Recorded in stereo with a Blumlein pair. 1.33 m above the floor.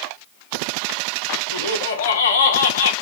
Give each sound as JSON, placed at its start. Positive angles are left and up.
{"t": 1.5, "sound": "laughter", "azimuth_deg": 65, "distance_m": 0.5}